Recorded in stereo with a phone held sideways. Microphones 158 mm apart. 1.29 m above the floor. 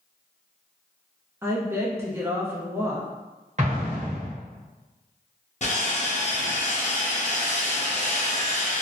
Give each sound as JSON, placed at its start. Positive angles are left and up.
{"t": 1.4, "sound": "a woman speaking", "side_deg": -15, "distance_m": 0.6}
{"t": 3.6, "sound": "an explosion", "side_deg": -45, "distance_m": 0.8}
{"t": 5.6, "sound": "sawing", "side_deg": 50, "distance_m": 0.6}